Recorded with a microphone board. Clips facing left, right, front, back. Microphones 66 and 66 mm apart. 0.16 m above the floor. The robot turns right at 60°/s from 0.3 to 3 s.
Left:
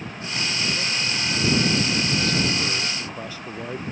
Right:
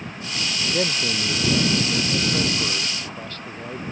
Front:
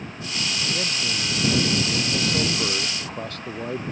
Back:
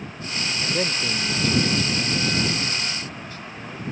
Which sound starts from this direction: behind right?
A man speaking, at 0.7 s.